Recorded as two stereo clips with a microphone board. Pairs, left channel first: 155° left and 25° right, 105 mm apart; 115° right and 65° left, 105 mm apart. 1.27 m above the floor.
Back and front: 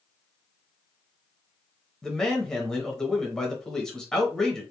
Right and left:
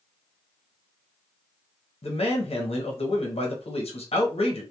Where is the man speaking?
120° right, 0.7 m.